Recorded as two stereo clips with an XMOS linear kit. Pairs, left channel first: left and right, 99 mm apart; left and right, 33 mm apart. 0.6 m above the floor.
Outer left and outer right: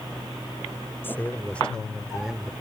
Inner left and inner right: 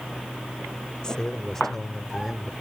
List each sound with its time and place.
1.0 s a man speaking: 20° left (ahead or behind); by 2.5 s 10° right (ahead or behind)